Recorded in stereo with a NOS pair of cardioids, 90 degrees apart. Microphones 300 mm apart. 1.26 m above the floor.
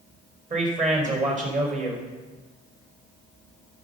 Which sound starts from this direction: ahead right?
A man speaking, at 0.5 s.